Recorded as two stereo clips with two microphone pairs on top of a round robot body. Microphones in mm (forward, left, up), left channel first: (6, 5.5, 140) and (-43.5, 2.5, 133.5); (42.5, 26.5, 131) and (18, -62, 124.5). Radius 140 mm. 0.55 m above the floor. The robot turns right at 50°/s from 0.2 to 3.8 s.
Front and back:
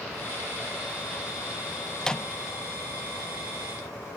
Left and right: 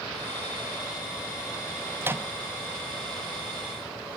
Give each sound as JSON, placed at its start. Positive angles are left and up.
{"t": 2.0, "sound": "a microwave", "azimuth_deg": -80}